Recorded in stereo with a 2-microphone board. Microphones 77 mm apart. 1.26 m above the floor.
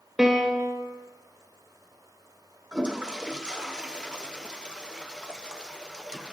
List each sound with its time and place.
0.2 s a piano: 5° right (ahead or behind), 1.5 m
2.7 s a toilet flushing: 10° right (ahead or behind), 0.6 m